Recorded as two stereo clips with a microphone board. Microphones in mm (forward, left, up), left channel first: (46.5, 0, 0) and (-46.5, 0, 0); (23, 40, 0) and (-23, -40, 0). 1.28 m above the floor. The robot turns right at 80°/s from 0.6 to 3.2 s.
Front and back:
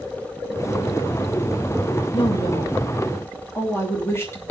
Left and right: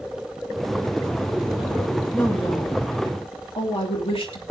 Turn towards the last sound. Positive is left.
turn(degrees=60)